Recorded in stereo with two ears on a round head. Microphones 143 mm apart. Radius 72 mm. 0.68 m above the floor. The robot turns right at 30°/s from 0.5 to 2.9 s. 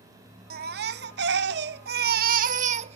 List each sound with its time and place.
0.5 s a baby crying: 115° right, 0.6 m; by 3.0 s 40° right, 0.6 m